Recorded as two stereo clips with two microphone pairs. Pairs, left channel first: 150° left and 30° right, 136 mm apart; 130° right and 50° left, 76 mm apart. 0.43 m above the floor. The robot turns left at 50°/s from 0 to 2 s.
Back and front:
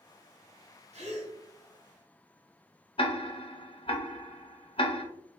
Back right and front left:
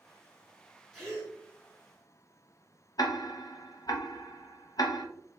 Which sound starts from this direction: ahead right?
A gasp, at 0.9 s.